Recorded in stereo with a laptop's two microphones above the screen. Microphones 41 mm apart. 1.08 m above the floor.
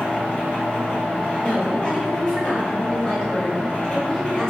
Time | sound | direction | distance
0.0 | a machine running | 55° left (ahead or behind) | 1.4 m
1.4 | a woman speaking | 30° left (ahead or behind) | 1.4 m